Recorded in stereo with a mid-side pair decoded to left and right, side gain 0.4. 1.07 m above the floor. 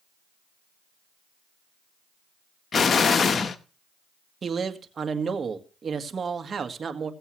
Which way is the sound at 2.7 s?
45° left.